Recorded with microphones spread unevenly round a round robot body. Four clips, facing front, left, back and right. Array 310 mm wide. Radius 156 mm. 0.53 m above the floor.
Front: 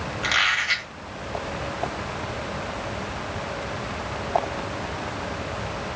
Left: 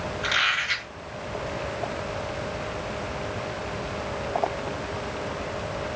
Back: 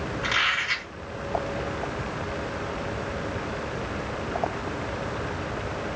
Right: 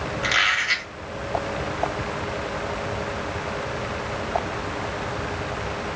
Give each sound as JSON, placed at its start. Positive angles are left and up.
{"t": 0.2, "sound": "a squeak", "azimuth_deg": -25, "distance_m": 1.7}